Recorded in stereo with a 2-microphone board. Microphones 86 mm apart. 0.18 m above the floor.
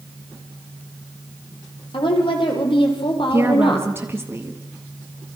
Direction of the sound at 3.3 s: 25° right (ahead or behind).